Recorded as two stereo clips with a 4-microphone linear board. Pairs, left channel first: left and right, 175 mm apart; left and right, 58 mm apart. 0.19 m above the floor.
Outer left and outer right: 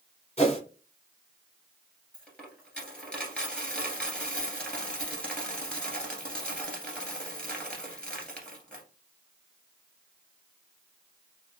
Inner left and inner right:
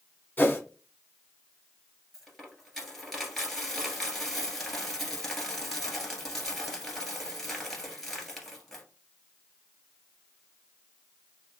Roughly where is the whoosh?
Left.